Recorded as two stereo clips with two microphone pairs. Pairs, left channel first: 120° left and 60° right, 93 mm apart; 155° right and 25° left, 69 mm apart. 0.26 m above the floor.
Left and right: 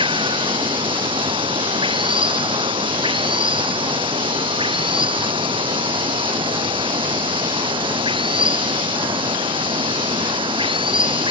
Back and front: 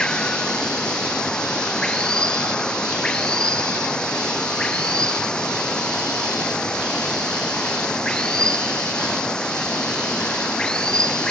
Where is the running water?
80° right.